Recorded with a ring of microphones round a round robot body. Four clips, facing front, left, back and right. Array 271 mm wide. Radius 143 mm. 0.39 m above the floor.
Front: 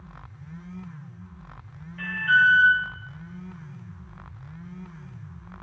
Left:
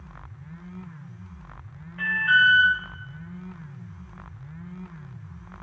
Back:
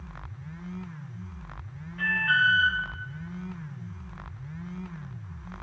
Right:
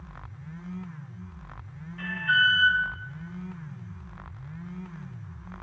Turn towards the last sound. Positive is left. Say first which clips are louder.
# left 4 dB, front 4 dB
turn(degrees=85)